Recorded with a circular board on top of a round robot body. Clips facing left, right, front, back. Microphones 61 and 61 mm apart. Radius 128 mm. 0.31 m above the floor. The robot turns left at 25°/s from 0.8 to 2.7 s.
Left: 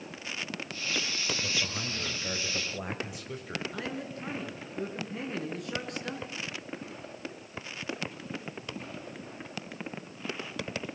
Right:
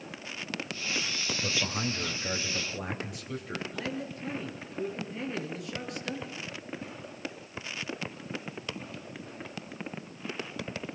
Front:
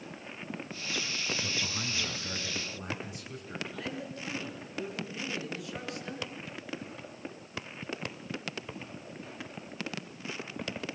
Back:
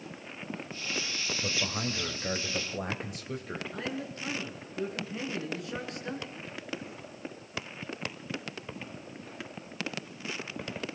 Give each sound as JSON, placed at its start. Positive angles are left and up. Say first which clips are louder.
{"t": 1.4, "sound": "a man speaking", "louder": "right 2 dB, back 3 dB", "azimuth_deg": -155, "distance_m": 2.0}
{"t": 3.7, "sound": "a man speaking", "louder": "right 1 dB, back 2 dB", "azimuth_deg": 125, "distance_m": 6.5}